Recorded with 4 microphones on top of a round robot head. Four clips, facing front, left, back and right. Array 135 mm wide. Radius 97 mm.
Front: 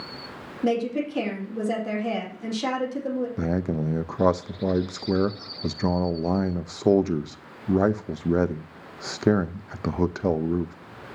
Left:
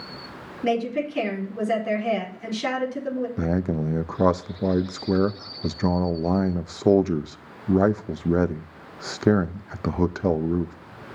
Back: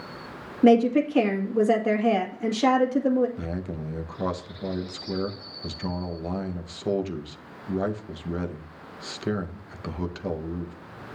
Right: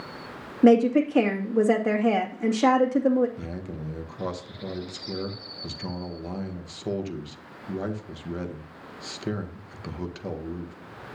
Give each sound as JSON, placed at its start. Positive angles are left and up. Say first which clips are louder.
{"t": 0.6, "sound": "a woman speaking", "louder": "right 7 dB, back 7 dB", "azimuth_deg": -115, "distance_m": 2.0}
{"t": 3.4, "sound": "a man speaking", "louder": "left 11 dB, front 7 dB", "azimuth_deg": 50, "distance_m": 0.6}